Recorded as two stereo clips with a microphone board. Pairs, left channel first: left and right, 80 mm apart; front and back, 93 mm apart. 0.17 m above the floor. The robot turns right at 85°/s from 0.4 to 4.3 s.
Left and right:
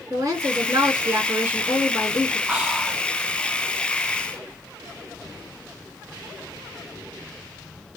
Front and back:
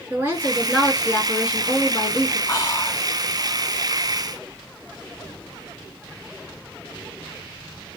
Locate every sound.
0.1 s a woman speaking: 120° right, 2 m; by 2.4 s 50° left, 2 m
2.5 s whispering: 20° right, 1.2 m; by 3.1 s 25° left, 1.2 m